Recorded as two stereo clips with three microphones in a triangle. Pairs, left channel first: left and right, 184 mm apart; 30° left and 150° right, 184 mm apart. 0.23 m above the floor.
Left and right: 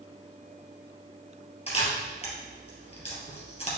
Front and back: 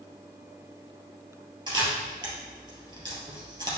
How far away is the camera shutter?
About 2.5 m.